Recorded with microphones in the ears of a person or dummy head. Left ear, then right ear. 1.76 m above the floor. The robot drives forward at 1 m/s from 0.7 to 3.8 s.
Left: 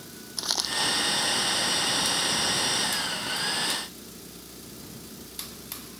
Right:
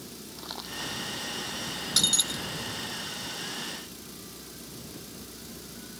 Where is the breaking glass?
60° right (ahead or behind).